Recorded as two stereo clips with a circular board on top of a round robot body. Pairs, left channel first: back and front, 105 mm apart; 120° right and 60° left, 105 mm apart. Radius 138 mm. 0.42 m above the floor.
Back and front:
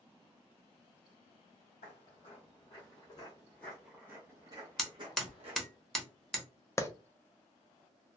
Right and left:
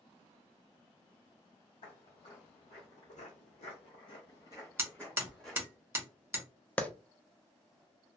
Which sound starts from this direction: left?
Hammering, at 4.8 s.